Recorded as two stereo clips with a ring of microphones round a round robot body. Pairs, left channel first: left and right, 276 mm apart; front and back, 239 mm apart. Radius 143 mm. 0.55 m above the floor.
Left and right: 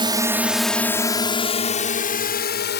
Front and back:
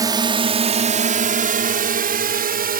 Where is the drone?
130° right; by 2.8 s 135° left.